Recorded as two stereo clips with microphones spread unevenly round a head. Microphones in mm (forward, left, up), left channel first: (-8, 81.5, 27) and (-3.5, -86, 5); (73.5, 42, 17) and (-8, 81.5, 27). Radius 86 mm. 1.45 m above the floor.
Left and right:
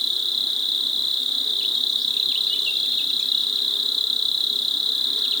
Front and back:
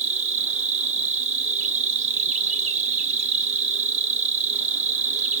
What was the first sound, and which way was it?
An insect, straight behind.